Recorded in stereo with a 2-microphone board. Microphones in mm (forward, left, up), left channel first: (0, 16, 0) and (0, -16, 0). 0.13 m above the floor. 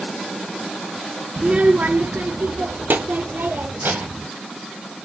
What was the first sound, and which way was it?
A child speaking, 25° right (ahead or behind).